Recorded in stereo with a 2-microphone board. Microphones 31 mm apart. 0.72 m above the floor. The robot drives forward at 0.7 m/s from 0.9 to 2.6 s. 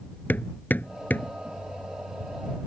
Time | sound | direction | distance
0.3 | hammering | 80° left | ?